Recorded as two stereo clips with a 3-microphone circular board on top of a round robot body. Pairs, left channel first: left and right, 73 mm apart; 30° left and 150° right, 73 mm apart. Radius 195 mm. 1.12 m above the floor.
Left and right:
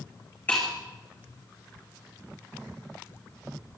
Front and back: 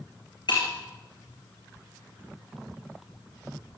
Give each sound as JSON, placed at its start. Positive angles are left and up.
{"t": 0.5, "sound": "breaking glass", "azimuth_deg": 20, "distance_m": 10.0}